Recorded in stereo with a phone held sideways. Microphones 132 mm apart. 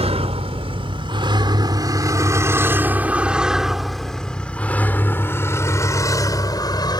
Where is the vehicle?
50° right (ahead or behind); by 7.0 s 35° left (ahead or behind).